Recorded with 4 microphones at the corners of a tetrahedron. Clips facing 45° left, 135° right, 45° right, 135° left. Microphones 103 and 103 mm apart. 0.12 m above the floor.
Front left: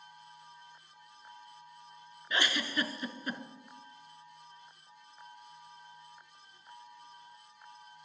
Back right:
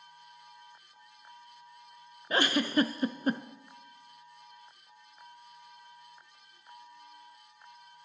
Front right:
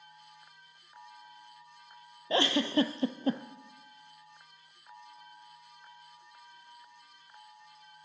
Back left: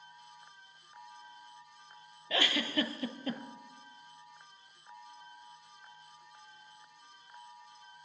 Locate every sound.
2.3 s a giggle: 95° right, 0.5 m